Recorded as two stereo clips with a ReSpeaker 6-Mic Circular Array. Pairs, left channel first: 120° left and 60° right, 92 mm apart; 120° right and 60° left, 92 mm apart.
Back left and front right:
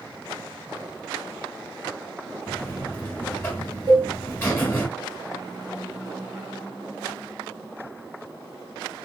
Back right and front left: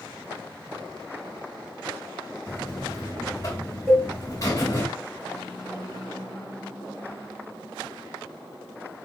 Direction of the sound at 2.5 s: 175° right.